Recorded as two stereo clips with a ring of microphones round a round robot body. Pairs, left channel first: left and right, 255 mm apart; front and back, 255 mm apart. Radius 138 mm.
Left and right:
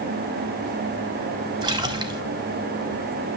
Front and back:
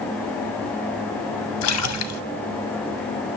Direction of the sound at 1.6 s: 15° right.